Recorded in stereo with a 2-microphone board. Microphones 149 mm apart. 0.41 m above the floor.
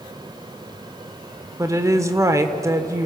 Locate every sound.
1.6 s a woman speaking: 20° right (ahead or behind), 1.3 m